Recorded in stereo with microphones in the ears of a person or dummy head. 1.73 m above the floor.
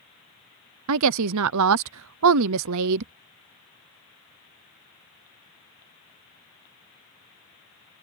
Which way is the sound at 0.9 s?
80° right.